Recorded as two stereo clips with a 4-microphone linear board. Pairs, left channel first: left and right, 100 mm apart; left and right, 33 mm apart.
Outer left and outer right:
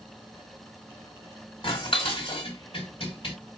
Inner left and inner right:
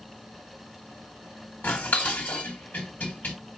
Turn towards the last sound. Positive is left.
turn(degrees=60)  # may be behind; listen again after turning